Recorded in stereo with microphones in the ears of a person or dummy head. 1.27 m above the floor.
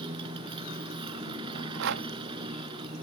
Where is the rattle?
65° right (ahead or behind).